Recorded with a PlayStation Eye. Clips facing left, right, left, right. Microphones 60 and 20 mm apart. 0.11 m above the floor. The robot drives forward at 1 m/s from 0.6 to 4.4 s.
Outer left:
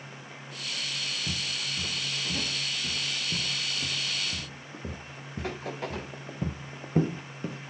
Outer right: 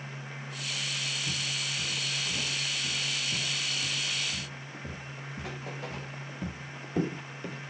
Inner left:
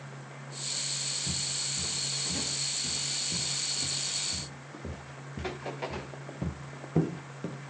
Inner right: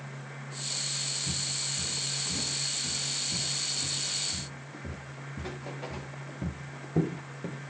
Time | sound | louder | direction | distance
1.3 | footsteps | even, inner right 1 dB | 70° left (ahead or behind) | 2 m